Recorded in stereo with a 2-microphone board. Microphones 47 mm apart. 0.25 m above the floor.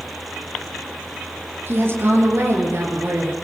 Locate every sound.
1.7 s a woman speaking: 50° right (ahead or behind), 5 m; by 3.3 s 65° right (ahead or behind), 5.5 m